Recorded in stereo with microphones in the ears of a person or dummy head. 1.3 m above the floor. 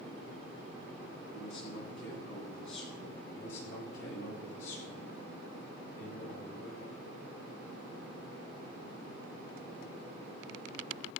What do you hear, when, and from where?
1.3 s a man speaking: 85° left, 10 m
3.3 s a man speaking: 75° left (ahead or behind), 8.5 m